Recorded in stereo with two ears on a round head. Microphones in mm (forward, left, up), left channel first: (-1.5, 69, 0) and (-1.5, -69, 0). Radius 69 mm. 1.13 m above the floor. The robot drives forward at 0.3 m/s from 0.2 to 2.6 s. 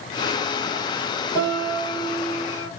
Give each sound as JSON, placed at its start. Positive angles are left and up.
{"t": 1.4, "sound": "a piano", "side_deg": 25, "distance_m": 7.5}